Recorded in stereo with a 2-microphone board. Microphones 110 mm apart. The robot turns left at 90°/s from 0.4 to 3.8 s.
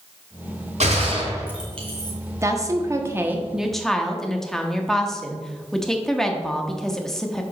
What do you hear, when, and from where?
0.8 s a gunshot: 80° right, 2 m; by 2.1 s 45° left (ahead or behind), 2 m
2.4 s a woman speaking: 25° right (ahead or behind), 0.9 m; by 7.4 s 5° left (ahead or behind), 0.9 m